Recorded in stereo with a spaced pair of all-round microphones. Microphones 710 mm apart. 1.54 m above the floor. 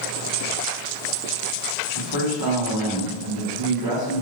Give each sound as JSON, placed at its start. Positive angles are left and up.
{"t": 1.9, "sound": "a man speaking", "side_deg": -30, "distance_m": 1.2}